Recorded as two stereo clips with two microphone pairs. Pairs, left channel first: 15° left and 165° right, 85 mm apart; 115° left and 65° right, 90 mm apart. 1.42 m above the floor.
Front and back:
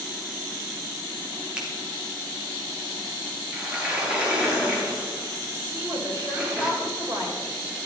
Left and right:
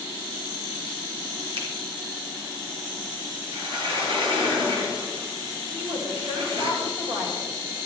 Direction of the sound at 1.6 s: 85° right.